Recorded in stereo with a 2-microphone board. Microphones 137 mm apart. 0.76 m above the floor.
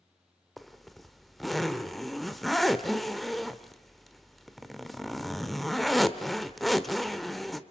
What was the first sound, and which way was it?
A zipper, centre (ahead or behind).